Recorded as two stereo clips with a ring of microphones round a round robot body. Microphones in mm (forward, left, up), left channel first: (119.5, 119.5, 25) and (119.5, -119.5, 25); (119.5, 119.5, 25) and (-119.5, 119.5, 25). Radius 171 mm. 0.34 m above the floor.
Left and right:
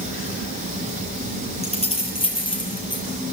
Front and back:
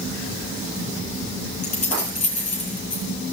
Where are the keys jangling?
25° left, 6 m; by 3.0 s 20° left, 6.5 m.